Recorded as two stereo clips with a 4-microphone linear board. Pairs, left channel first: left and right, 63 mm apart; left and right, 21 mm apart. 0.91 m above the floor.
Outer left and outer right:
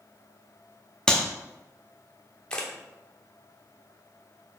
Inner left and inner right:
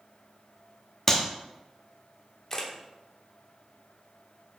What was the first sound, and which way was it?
A clap, 10° left (ahead or behind).